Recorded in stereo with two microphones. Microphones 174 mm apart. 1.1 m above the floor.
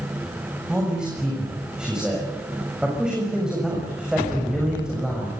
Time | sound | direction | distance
0.7 | a man speaking | 5° right (ahead or behind) | 7 m